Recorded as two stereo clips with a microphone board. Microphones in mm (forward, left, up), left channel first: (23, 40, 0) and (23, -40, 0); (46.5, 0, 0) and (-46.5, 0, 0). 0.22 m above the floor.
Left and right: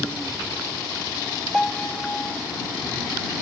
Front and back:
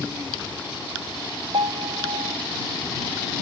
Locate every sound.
1.5 s a piano: 170° left